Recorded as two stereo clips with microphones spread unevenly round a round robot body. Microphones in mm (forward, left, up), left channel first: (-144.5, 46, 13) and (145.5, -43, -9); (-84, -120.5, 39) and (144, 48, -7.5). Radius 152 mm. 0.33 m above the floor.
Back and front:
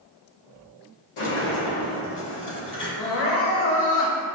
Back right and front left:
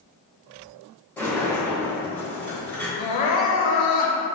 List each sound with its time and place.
1.2 s a sliding door: 125° left, 0.8 m
3.0 s crying: 155° right, 0.7 m